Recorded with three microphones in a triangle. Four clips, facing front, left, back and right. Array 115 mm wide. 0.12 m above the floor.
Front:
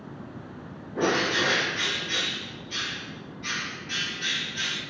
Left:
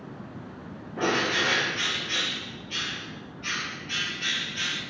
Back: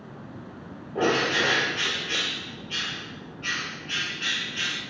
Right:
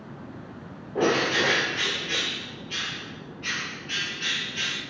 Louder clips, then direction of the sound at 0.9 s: Right 3 dB, back 1 dB; 110° right.